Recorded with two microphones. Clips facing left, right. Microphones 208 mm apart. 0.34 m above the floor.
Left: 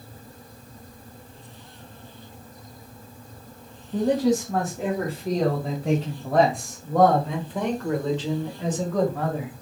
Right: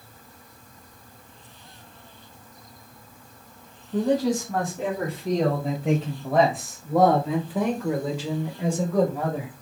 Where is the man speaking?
5° left (ahead or behind), 2.5 m; by 9.5 s 10° right (ahead or behind), 1.6 m.